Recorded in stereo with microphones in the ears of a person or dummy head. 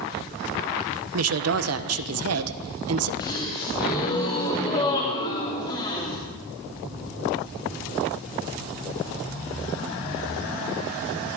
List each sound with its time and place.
1.1 s a woman speaking: 80° right, 1.0 m
3.2 s a gasp: 25° left (ahead or behind), 3 m